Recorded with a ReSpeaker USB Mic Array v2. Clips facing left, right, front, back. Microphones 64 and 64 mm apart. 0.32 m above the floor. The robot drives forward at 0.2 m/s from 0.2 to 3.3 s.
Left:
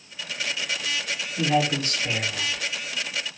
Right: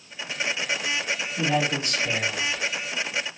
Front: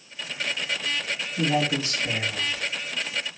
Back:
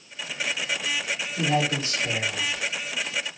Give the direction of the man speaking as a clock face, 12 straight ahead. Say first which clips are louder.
Left 2 dB, front 1 dB; 6 o'clock.